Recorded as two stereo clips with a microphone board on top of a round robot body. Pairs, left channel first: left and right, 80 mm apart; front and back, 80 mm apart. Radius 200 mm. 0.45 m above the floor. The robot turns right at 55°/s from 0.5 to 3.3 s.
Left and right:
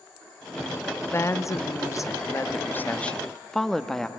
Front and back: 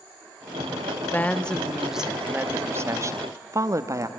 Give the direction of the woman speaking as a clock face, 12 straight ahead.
10 o'clock.